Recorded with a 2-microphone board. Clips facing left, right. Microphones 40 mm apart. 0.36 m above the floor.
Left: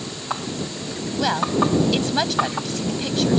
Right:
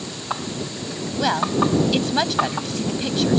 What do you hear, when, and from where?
1.2 s a woman speaking: 5° right (ahead or behind)